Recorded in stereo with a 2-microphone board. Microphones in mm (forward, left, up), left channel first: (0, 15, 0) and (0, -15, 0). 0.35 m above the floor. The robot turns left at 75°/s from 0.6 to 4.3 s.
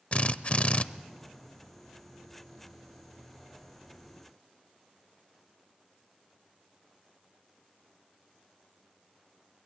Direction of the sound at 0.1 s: 45° left (ahead or behind).